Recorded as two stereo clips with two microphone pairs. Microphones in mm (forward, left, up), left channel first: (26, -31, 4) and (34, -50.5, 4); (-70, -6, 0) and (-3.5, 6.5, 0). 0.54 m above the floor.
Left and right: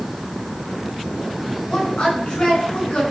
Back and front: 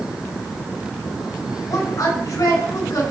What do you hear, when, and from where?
1.7 s a woman speaking: 160° left, 6 m